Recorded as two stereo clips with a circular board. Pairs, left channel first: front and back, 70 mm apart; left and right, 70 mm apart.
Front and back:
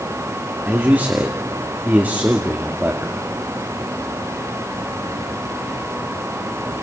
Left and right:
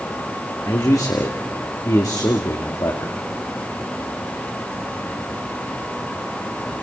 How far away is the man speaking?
About 2.5 m.